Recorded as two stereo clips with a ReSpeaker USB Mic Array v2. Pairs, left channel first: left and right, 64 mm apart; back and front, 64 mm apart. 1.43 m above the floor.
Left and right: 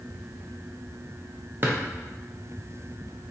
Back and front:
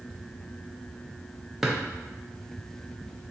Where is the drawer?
80° right, 0.6 m.